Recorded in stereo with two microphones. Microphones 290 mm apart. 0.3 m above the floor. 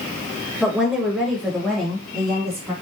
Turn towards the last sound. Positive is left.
turn(degrees=5)  # may be behind; listen again after turning